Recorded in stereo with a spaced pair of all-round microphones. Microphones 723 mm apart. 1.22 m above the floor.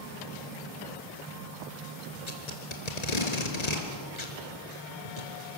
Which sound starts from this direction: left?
Tape being pulled, at 2.3 s.